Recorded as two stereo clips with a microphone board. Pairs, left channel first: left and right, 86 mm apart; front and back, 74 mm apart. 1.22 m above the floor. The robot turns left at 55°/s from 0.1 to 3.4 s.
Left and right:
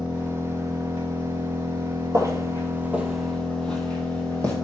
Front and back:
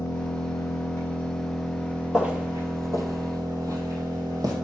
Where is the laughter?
I don't hear laughter.